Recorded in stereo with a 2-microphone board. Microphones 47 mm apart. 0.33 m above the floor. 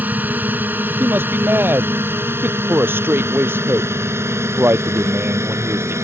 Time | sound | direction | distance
0.0 | a drone | 40° right (ahead or behind) | ?
1.0 | a man speaking | 45° right (ahead or behind) | ?